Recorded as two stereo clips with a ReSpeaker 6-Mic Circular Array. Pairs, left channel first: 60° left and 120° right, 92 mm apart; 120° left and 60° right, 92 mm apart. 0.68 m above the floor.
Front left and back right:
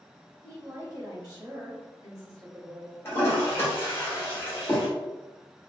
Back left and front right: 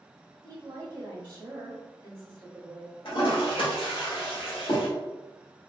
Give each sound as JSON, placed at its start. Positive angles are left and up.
{"t": 0.4, "sound": "a woman speaking", "azimuth_deg": -80, "distance_m": 1.2}
{"t": 3.0, "sound": "a toilet flushing", "azimuth_deg": 125, "distance_m": 1.5}